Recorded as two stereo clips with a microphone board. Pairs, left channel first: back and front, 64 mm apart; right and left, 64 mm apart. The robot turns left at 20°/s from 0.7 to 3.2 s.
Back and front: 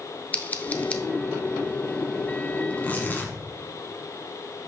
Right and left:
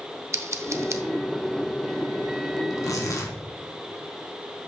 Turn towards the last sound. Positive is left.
turn(degrees=-120)